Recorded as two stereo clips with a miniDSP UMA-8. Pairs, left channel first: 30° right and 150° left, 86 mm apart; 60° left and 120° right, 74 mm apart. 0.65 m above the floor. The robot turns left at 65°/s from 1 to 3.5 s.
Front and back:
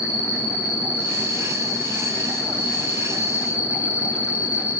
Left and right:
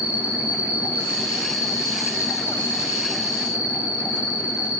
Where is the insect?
175° left, 1.7 m; by 4.8 s 10° left, 1.7 m.